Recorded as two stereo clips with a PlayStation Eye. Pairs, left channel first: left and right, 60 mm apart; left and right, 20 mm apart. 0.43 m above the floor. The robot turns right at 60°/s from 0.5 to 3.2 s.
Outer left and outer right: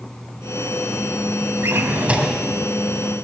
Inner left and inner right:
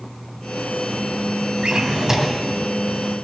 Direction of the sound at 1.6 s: 50° right.